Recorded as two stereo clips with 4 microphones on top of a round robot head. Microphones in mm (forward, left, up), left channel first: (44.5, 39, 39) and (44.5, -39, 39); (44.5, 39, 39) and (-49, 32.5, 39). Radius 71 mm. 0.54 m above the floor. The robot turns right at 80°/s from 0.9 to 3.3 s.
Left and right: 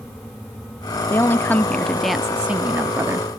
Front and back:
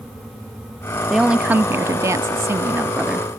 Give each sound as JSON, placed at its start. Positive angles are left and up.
{"t": 1.1, "sound": "a woman speaking", "azimuth_deg": 100, "distance_m": 0.7}